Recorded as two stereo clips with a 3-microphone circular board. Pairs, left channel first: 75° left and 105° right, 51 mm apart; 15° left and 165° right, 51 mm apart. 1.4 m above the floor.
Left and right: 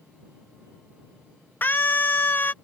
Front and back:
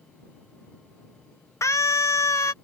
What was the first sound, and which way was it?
A scream, 25° left.